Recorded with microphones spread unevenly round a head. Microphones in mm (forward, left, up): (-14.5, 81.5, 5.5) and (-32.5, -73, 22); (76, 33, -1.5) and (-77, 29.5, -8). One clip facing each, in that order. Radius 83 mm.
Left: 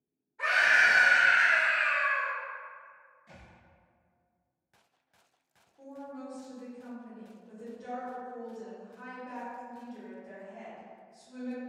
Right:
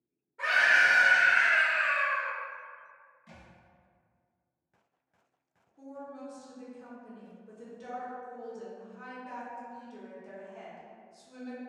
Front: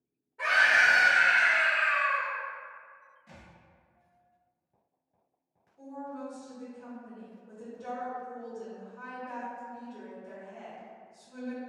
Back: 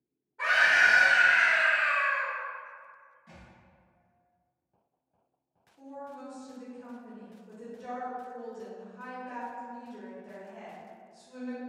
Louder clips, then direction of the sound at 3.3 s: Right 1 dB, even; 85° right.